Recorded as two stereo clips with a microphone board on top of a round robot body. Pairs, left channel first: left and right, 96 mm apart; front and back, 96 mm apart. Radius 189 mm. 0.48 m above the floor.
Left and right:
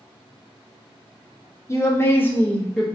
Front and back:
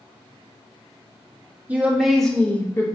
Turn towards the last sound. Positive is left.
turn(degrees=10)